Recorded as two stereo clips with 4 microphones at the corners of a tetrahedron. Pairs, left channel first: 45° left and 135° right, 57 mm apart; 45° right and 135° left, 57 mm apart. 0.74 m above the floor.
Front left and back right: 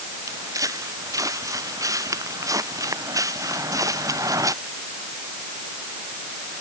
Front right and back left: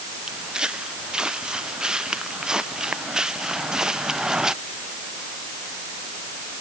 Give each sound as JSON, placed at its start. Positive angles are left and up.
{"t": 0.3, "sound": "footsteps", "azimuth_deg": -150}